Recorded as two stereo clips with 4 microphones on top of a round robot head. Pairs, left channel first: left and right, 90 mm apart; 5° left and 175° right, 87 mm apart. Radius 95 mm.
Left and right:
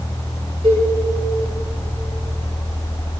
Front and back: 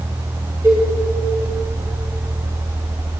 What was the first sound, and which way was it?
A cowbell, 110° right.